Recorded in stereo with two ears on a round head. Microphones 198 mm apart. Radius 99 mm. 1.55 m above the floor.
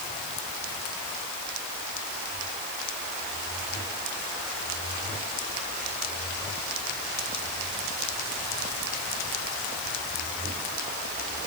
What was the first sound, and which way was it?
Only background noise.